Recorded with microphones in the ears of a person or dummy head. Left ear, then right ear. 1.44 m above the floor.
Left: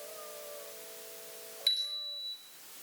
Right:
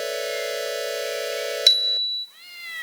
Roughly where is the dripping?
I don't hear dripping.